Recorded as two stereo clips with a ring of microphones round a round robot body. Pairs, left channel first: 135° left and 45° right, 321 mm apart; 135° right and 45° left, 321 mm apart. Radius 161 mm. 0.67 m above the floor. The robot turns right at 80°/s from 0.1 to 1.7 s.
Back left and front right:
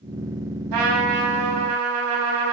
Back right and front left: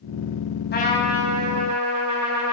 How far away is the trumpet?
About 5 m.